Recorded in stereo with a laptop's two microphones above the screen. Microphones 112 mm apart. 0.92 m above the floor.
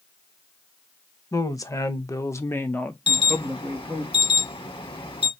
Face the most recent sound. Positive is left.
turn(degrees=50)  # may be behind; listen again after turning